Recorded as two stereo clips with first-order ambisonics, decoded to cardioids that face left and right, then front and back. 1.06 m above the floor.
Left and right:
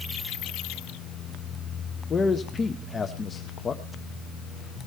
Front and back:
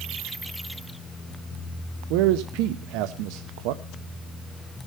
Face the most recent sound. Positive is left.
turn(degrees=165)